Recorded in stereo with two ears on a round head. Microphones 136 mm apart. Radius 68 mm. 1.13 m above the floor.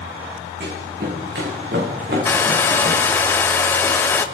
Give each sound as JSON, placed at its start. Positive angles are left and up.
{"t": 0.6, "sound": "running footsteps", "side_deg": -65, "distance_m": 5.5}
{"t": 2.2, "sound": "a hair dryer", "side_deg": 15, "distance_m": 0.7}